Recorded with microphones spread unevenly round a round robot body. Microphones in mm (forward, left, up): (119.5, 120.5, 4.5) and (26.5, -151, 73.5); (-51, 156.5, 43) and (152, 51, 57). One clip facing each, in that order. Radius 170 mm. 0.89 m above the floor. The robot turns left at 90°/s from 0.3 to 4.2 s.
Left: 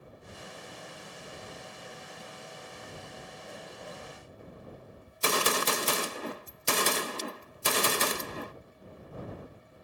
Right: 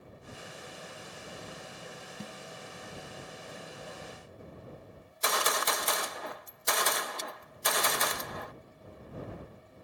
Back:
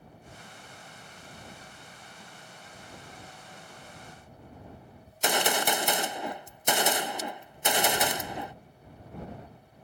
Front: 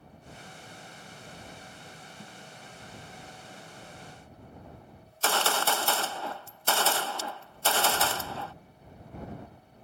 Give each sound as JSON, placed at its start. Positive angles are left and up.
{"t": 2.2, "sound": "a snare drum", "azimuth_deg": -100}
{"t": 5.1, "sound": "a gunshot", "azimuth_deg": 85}